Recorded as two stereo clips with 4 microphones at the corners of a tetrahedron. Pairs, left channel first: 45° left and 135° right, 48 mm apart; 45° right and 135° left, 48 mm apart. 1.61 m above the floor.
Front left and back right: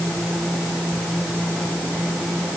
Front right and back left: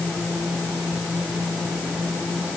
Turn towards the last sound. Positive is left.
No sound to turn to.